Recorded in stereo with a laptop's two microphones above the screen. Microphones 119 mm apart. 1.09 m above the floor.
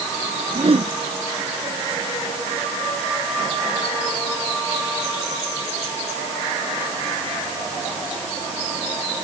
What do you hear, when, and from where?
0.5 s a whoosh: 55° right (ahead or behind)